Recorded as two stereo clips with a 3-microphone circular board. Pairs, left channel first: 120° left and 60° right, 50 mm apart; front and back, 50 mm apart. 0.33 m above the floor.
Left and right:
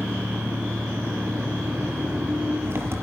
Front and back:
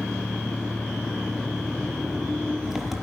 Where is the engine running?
95° right, 4.5 m.